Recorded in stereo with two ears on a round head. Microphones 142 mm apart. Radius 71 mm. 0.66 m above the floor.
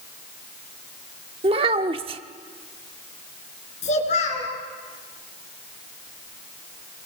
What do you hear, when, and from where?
1.4 s a child speaking: 35° right (ahead or behind), 1.0 m
3.8 s a child speaking: 45° left (ahead or behind), 4.5 m